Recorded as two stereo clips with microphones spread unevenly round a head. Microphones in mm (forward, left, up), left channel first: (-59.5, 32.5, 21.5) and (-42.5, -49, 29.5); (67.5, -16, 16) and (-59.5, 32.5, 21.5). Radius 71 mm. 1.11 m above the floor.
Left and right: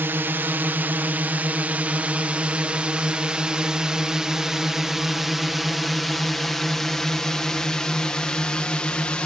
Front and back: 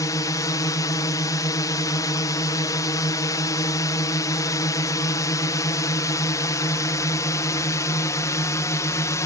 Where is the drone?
40° right; by 9.3 s 35° left.